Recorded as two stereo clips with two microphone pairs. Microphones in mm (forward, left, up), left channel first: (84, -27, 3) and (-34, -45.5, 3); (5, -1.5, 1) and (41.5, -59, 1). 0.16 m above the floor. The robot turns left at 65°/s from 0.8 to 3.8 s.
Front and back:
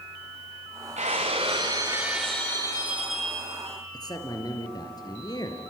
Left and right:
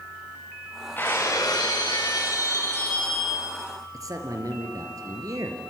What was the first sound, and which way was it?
Breaking glass, 175° right.